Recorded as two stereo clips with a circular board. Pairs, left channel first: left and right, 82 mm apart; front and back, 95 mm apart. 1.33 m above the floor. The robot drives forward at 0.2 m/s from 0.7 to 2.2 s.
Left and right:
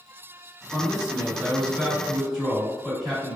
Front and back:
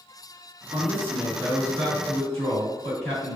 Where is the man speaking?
175° right, 1.7 m.